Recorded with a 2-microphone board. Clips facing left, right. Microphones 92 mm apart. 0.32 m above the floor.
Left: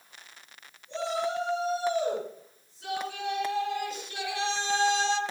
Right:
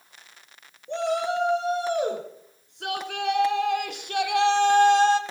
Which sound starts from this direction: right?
A shout, at 0.9 s.